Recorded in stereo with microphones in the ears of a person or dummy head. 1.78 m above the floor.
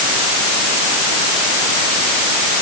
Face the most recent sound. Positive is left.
No sound to turn to.